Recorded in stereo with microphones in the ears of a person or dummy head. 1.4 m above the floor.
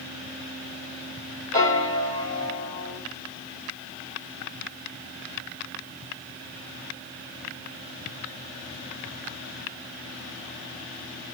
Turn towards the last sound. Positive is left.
turn(degrees=25)  # may be behind; listen again after turning